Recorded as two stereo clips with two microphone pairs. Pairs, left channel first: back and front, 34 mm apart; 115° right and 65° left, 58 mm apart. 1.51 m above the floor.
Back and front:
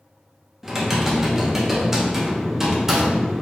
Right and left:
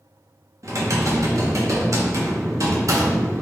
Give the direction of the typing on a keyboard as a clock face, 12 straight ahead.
10 o'clock.